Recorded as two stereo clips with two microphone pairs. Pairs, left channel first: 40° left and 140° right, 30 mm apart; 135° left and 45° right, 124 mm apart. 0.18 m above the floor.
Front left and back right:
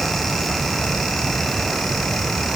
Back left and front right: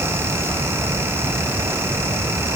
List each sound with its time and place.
Only background noise.